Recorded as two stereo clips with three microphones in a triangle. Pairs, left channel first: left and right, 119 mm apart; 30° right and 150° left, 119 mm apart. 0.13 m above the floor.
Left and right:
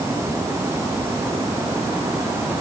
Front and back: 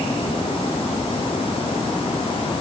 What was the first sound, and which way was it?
Only background noise.